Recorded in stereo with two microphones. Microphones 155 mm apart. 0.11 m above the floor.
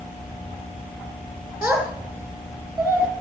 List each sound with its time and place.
1.6 s a child speaking: 10° right (ahead or behind), 2.5 m